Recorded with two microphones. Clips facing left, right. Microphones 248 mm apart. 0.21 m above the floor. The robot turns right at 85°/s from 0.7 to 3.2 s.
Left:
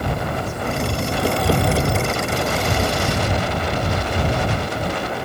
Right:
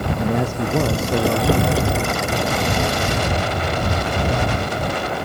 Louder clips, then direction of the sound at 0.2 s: Right 5 dB; 105° right.